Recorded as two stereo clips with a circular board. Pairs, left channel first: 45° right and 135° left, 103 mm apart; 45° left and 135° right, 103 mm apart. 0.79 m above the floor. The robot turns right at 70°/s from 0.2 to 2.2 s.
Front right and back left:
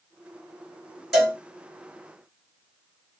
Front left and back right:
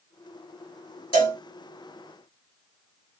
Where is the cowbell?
45° left, 2 m; by 1.4 s 65° left, 2 m.